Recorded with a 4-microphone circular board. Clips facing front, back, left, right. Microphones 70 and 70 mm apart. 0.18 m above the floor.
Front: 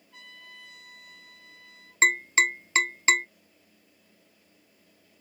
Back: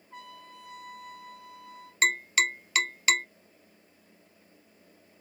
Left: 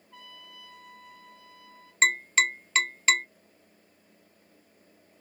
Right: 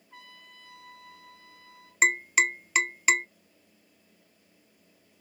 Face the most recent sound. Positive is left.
turn(degrees=-25)